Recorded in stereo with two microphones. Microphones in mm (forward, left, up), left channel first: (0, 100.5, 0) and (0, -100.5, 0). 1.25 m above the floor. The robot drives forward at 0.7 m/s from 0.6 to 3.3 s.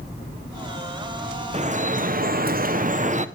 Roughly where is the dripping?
Right.